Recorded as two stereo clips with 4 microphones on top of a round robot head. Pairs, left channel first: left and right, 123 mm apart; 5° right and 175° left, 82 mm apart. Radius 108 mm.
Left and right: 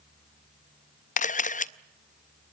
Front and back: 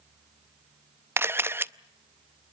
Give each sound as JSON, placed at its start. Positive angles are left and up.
{"t": 1.2, "sound": "a camera shutter", "azimuth_deg": 110, "distance_m": 0.6}